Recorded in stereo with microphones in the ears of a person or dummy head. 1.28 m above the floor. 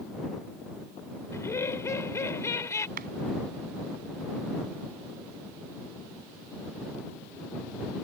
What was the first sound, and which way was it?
Laughter, 20° left (ahead or behind).